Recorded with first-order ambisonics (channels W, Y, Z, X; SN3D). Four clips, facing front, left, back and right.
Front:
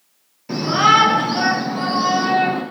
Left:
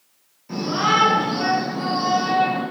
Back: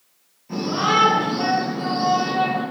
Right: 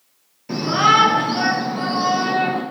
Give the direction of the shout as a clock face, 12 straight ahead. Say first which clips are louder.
Right 4 dB, front 6 dB; 1 o'clock.